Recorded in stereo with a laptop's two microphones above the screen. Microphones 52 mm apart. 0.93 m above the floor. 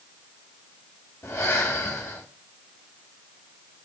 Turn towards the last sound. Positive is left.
turn(degrees=60)  # may be behind; listen again after turning